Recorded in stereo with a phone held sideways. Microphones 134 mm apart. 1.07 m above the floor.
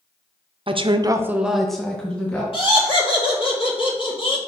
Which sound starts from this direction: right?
A woman speaking, at 0.7 s.